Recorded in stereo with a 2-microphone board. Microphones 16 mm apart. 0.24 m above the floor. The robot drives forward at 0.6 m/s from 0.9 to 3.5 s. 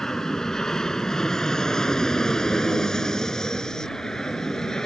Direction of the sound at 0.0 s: 40° left (ahead or behind).